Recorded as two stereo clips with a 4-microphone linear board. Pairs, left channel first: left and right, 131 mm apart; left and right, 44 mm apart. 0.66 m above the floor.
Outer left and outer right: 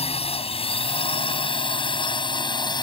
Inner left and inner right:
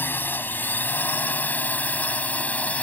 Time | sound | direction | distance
0.0 | a drone | 50° left (ahead or behind) | ?